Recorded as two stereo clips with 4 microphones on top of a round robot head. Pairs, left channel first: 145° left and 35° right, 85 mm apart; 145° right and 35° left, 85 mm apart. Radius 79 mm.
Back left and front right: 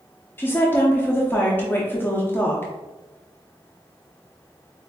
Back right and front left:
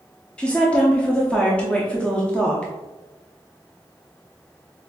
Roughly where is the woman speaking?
Behind left.